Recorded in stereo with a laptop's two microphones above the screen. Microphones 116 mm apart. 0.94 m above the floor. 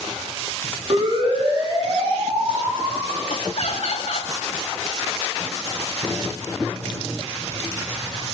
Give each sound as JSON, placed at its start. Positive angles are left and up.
{"t": 0.9, "sound": "a siren", "side_deg": -50, "distance_m": 8.5}
{"t": 3.3, "sound": "laughter", "side_deg": 65, "distance_m": 2.0}